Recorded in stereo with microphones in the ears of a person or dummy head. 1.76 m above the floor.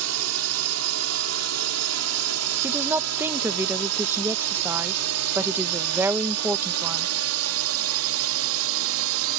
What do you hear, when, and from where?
0.0 s a drone: 80° right; by 9.4 s 75° right (ahead or behind)
2.6 s a woman speaking: 15° right (ahead or behind)